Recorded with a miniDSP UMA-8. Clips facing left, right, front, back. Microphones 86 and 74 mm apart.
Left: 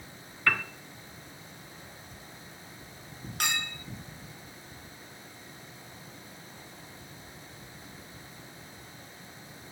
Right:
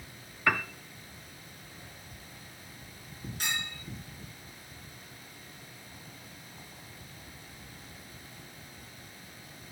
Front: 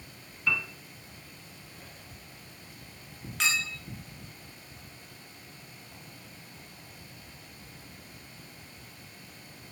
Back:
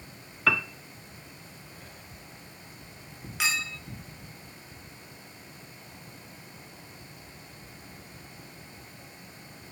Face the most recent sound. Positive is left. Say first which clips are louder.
# left 4 dB, even
turn(degrees=95)